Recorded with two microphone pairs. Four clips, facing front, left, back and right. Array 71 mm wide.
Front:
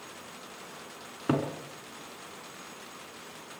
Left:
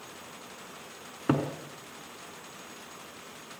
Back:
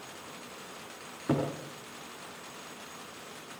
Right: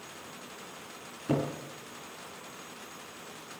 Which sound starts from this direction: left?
A cupboard door, at 1.3 s.